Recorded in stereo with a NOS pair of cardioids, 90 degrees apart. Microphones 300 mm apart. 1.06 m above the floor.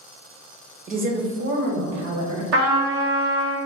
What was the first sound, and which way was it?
A woman speaking, 25° right.